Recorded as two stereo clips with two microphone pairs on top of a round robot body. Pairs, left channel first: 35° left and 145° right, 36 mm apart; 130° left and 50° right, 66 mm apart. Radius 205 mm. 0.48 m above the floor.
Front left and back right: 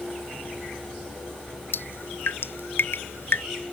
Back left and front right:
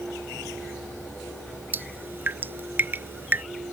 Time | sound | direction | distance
1.7 | dripping | 10° left | ?